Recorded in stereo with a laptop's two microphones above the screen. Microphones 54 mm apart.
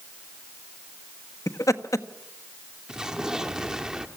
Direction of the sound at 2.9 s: 15° right (ahead or behind).